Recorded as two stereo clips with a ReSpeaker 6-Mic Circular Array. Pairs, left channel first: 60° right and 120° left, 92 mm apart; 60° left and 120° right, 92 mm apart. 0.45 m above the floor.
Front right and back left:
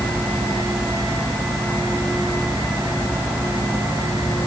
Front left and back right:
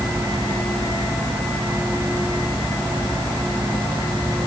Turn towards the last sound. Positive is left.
No sound to turn to.